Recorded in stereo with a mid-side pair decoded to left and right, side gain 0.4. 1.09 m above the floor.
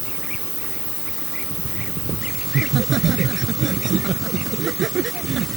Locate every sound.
2.5 s laughter: 65° right